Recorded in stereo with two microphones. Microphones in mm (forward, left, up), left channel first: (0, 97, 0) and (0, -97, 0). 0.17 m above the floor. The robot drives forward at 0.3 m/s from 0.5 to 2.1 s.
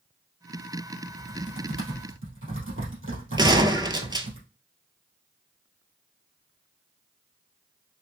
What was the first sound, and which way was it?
Typing on a keyboard, 75° right (ahead or behind).